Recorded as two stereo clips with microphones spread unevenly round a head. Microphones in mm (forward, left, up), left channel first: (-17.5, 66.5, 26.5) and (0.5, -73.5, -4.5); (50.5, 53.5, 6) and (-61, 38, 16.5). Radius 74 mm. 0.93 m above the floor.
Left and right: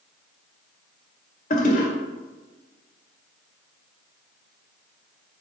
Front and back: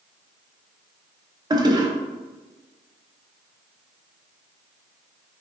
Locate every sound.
1.5 s a toilet flushing: 135° left, 0.7 m